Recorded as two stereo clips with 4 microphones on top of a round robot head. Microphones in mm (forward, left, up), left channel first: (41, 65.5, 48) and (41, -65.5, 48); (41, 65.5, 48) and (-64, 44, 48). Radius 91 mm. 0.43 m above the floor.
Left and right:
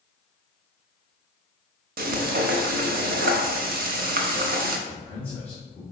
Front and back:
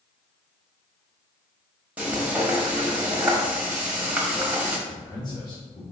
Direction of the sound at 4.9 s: 15° left.